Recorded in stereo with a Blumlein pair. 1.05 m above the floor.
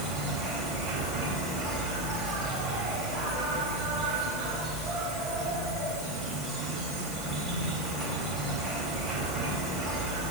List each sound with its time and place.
0.0 s an insect: 15° right, 3 m